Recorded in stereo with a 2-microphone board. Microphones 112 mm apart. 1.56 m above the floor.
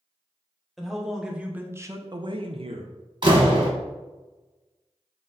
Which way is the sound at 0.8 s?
Centre (ahead or behind).